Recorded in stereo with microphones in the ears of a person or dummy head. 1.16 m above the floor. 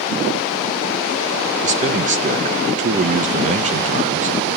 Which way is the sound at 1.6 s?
30° right (ahead or behind).